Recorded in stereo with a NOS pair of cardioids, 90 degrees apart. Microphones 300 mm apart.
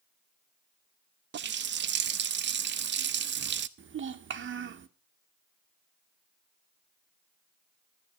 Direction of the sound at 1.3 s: 40° right.